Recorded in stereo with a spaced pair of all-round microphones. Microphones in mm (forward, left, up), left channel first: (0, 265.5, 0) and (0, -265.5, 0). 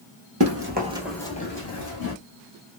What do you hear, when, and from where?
0.4 s running footsteps: 30° right (ahead or behind), 1.3 m; by 2.1 s 45° left (ahead or behind), 1.4 m